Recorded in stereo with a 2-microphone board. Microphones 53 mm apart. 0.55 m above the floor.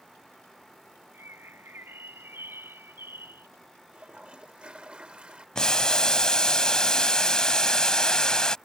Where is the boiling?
15° left (ahead or behind).